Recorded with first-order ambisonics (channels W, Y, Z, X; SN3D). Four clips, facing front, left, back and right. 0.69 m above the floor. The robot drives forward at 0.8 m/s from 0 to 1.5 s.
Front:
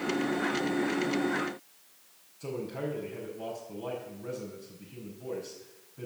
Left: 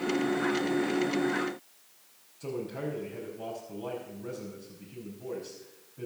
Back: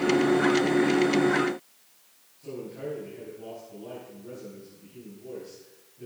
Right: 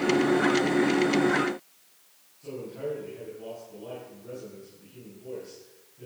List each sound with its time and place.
2.4 s a man speaking: 45° left, 5 m